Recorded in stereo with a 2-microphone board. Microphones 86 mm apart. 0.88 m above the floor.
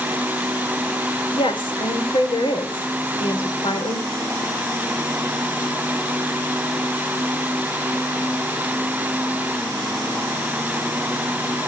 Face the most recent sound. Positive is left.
turn(degrees=80)